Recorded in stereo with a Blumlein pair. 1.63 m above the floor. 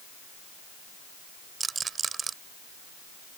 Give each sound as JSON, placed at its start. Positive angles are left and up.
{"t": 1.6, "sound": "a rattle", "azimuth_deg": -15}